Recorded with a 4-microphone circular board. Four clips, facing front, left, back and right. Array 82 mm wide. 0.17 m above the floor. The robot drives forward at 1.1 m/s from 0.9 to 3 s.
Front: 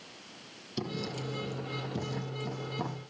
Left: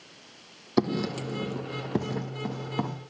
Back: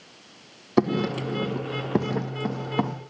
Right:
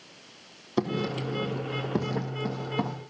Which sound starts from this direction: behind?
Writing, at 0.8 s.